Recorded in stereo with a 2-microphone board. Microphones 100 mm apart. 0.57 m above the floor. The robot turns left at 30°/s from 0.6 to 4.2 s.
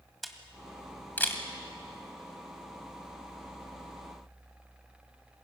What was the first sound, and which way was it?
A camera shutter, centre (ahead or behind).